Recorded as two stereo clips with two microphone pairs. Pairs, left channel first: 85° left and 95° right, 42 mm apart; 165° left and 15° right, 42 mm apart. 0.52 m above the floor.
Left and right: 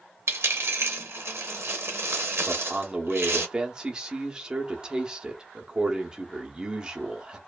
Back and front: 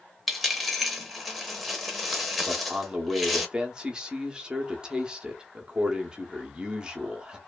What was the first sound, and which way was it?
A dropped coin, 105° right.